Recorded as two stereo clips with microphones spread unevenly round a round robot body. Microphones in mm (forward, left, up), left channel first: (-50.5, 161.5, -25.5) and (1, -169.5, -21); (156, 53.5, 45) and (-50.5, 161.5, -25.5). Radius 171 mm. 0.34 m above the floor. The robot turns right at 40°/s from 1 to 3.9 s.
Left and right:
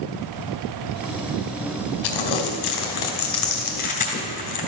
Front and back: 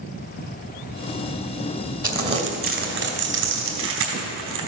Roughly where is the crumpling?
Left.